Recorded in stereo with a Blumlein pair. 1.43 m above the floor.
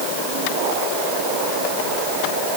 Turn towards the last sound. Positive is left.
No sound to turn to.